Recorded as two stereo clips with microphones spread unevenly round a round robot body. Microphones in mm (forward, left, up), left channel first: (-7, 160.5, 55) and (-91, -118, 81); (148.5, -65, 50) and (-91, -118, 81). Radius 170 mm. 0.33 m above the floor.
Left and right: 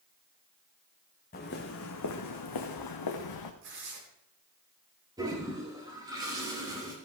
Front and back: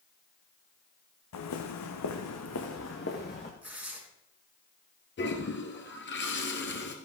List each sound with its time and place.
1.3 s footsteps: 10° left, 1.4 m; by 3.5 s 80° left, 1.9 m
3.6 s tearing paper: 80° right, 4 m
5.2 s a toilet flushing: 30° right, 2.5 m